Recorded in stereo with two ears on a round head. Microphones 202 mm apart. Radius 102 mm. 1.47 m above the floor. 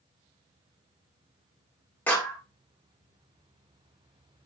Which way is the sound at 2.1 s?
5° left (ahead or behind).